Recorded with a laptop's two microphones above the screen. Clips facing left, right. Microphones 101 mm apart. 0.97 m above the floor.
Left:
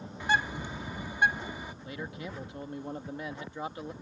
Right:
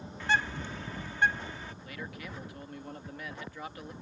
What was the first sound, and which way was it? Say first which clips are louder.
A bird: left 1 dB; 15° left (ahead or behind).